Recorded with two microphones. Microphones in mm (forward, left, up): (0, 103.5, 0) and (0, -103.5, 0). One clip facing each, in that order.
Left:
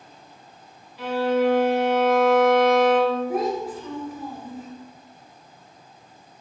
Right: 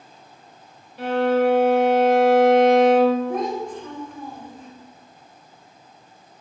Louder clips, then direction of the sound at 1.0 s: Right 2 dB; 55° right (ahead or behind).